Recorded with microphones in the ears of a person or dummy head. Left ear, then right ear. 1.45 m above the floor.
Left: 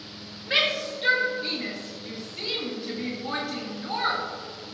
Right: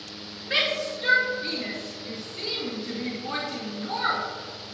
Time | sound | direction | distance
0.5 | a shout | 5° left (ahead or behind) | 2.5 m